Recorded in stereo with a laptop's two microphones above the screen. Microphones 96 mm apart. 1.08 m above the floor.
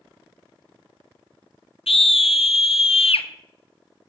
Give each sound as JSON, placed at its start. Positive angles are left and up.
{"t": 1.9, "sound": "a scream", "side_deg": 80, "distance_m": 0.9}